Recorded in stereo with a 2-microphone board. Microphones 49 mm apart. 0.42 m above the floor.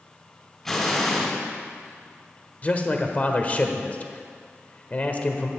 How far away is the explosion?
About 2.5 m.